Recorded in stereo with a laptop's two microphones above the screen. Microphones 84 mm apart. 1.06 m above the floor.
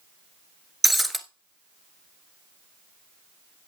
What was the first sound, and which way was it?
Breaking glass, centre (ahead or behind).